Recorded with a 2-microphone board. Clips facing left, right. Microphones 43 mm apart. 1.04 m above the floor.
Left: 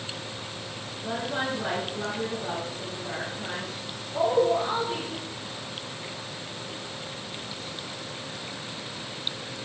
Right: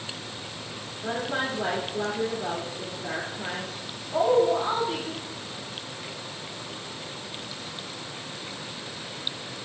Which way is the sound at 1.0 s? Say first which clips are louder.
Right 1 dB; 75° right (ahead or behind).